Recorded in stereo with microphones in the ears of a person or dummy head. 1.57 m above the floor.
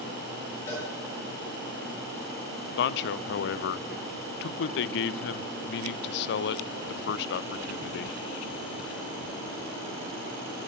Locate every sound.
0.7 s a cowbell: 20° left (ahead or behind), 7 m
2.8 s a man speaking: 65° left (ahead or behind), 0.6 m